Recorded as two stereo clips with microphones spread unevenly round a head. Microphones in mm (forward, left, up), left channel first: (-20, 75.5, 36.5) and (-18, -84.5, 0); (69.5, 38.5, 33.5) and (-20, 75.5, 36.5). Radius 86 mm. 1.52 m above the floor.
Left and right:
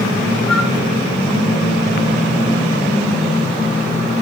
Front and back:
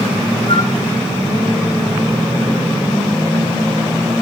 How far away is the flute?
About 3.5 m.